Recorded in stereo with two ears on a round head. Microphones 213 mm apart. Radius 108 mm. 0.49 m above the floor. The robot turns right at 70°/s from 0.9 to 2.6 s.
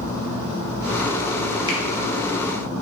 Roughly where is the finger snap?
Centre.